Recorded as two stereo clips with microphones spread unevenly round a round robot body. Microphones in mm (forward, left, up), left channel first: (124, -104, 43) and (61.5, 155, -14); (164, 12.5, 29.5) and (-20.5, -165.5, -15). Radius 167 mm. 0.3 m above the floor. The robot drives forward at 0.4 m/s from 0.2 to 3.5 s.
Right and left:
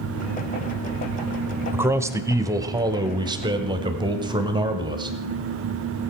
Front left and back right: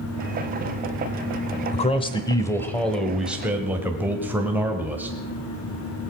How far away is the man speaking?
About 1.0 m.